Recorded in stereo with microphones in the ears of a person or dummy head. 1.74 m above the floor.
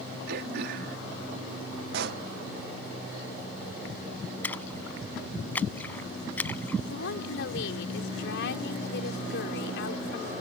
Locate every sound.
0.3 s throat clearing: 65° right (ahead or behind)
1.9 s a pop: 70° right (ahead or behind)
4.4 s a splash: 10° left (ahead or behind)
6.9 s a woman speaking: 75° left (ahead or behind)